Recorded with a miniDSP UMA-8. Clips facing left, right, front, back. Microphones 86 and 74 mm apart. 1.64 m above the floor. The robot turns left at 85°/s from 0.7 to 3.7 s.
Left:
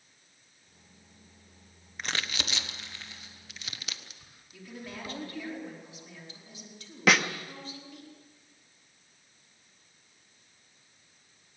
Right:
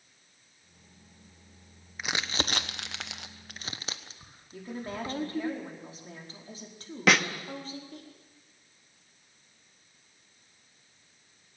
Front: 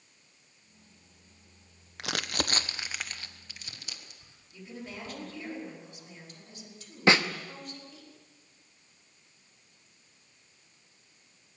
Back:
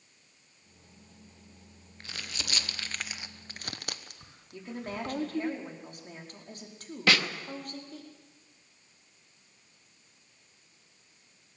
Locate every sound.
2.0 s crumpling: 5° right, 1.1 m; by 5.5 s 150° right, 1.1 m
4.5 s a woman speaking: 140° right, 4.5 m
7.1 s a snare drum: straight ahead, 1.0 m